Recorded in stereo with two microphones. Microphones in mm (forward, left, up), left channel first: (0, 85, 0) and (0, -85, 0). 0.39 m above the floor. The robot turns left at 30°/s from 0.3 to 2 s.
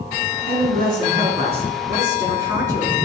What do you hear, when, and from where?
0.5 s a man speaking: 115° right, 4 m; by 3.0 s 160° right, 4 m